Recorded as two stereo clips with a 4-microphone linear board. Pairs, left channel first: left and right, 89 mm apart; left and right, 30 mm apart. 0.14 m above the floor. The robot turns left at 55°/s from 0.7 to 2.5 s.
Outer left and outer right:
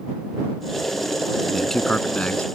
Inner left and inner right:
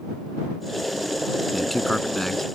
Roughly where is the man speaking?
Centre.